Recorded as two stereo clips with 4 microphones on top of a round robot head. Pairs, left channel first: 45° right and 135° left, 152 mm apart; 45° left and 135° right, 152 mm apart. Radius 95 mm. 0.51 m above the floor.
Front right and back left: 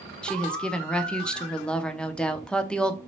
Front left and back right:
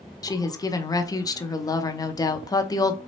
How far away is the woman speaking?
About 0.7 m.